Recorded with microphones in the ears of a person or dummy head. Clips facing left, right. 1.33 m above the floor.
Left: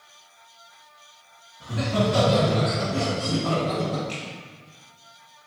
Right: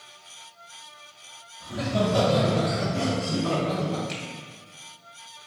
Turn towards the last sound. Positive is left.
turn(degrees=-10)  # may be behind; listen again after turning